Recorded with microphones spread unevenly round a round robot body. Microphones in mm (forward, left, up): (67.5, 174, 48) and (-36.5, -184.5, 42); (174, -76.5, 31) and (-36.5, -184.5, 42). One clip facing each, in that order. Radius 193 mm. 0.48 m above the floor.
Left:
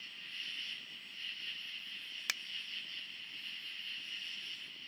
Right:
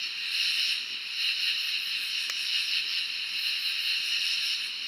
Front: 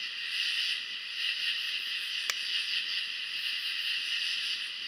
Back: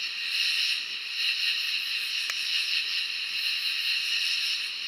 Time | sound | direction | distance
0.0 | an insect | 120° right | ?
2.3 | a finger snap | 10° right | ?